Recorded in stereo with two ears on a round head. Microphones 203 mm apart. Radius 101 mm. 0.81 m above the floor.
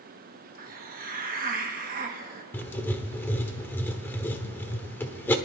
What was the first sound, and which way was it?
A hiss, 40° right (ahead or behind).